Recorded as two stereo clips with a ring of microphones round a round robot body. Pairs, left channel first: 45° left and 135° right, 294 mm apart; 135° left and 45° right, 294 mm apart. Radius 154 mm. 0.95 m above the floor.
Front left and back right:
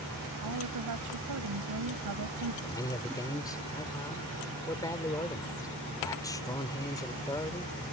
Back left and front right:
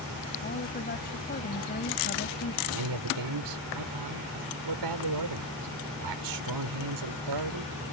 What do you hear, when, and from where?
0.4 s a woman speaking: 165° right
2.6 s a man speaking: 35° right